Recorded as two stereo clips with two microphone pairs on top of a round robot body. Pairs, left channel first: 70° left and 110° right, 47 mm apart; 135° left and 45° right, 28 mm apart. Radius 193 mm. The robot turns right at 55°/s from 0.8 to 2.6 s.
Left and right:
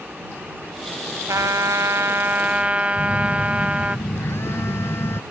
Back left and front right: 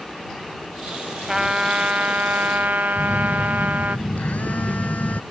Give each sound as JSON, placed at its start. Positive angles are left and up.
{"t": 1.3, "sound": "a trumpet", "azimuth_deg": -115}
{"t": 3.0, "sound": "a phone buzzing", "azimuth_deg": 105}